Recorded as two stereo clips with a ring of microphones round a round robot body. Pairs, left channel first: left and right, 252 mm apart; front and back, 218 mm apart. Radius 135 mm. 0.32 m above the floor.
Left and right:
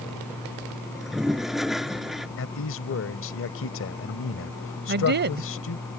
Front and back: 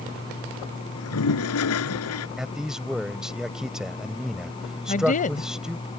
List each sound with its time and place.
0.9 s a toilet flushing: straight ahead
2.4 s a man speaking: 95° left
4.9 s a woman speaking: 50° right